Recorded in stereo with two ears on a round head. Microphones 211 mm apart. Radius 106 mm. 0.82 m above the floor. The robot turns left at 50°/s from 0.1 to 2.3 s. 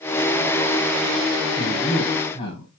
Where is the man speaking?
170° right, 6 m; by 2.7 s 155° left, 6 m.